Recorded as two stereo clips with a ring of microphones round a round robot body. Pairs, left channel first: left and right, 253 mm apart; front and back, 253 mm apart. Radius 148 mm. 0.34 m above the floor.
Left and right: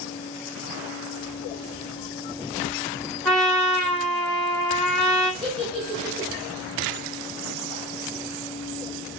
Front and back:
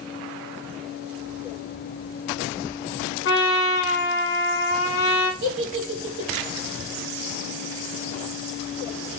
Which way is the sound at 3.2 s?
5° left.